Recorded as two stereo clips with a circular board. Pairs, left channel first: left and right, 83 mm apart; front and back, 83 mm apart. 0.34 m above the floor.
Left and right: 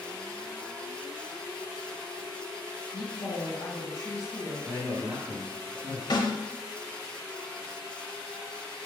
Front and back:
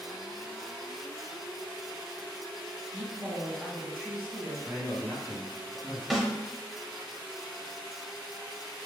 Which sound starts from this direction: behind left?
A woman speaking, at 2.9 s.